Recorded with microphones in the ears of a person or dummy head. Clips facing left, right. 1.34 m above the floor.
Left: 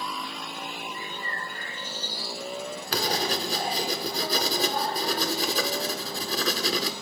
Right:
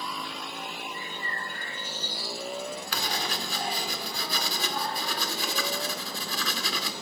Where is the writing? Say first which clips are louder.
Left 10 dB; 30° left (ahead or behind), 1.0 m.